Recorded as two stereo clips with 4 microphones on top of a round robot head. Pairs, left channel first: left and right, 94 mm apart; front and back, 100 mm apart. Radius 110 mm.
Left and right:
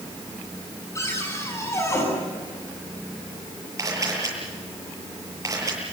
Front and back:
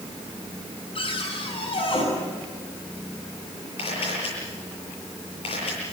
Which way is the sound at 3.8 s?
35° right.